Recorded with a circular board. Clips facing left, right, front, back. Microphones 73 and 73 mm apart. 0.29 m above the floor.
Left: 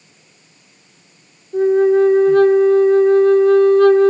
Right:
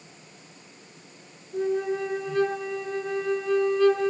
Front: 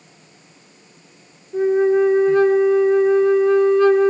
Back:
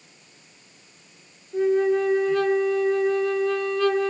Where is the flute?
60° left, 1.7 m.